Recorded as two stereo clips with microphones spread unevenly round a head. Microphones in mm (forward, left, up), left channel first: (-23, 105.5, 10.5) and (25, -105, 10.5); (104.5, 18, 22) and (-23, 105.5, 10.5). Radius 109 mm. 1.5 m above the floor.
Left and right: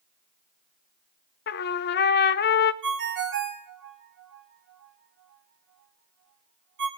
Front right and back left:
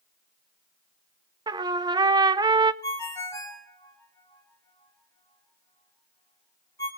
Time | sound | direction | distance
1.5 | a trumpet | 85° left | 0.5 m
2.8 | a ringtone | 105° right | 1.9 m